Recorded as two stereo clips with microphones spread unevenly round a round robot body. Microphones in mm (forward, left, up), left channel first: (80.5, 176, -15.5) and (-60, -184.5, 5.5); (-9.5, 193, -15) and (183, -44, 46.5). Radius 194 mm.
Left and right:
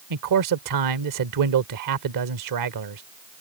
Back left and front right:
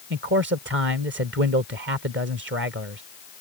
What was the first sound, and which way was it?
A man speaking, 105° right.